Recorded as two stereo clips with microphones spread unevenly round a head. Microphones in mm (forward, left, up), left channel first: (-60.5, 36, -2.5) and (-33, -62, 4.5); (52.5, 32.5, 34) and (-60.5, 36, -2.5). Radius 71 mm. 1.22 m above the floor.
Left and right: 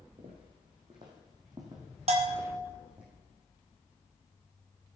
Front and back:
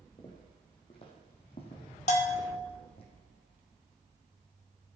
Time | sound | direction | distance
0.2 | footsteps | 40° right | 2.5 m
2.1 | a bell | 40° right | 1.3 m